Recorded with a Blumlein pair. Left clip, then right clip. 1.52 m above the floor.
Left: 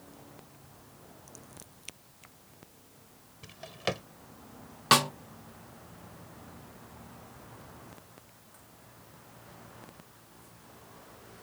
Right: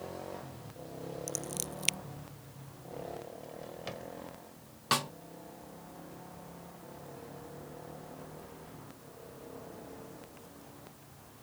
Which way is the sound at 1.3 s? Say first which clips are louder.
Right 13 dB; 55° right.